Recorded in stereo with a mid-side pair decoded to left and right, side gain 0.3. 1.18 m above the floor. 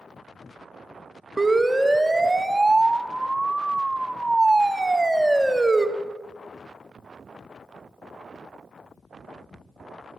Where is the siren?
15° right, 2.5 m.